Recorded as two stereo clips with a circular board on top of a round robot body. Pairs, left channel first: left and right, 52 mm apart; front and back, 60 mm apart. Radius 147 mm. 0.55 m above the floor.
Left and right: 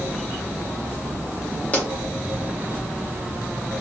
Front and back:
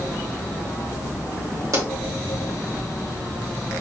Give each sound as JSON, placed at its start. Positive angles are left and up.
{"t": 1.7, "sound": "a pop", "azimuth_deg": 150, "distance_m": 2.0}